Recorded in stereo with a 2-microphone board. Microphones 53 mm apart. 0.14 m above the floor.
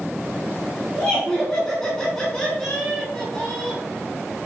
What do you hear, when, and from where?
0.9 s laughter: 10° left (ahead or behind), 1.1 m